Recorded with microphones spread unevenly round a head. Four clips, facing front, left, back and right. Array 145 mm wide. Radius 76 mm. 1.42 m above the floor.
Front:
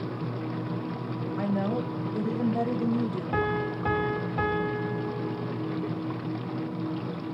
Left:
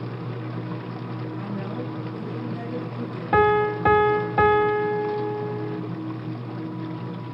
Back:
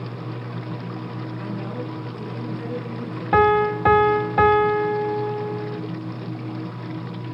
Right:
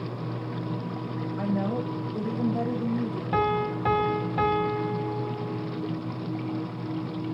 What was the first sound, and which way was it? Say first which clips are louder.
A woman speaking: right 6 dB, front 5 dB; 35° right.